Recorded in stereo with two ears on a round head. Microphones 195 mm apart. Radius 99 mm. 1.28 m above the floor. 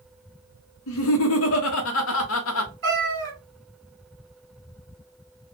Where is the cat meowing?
50° right (ahead or behind), 1.5 m.